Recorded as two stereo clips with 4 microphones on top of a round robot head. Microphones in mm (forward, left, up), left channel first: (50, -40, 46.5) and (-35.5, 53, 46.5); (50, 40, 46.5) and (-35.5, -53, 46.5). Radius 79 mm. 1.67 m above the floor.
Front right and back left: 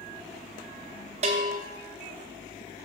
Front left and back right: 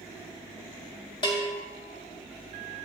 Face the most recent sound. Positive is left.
turn(degrees=100)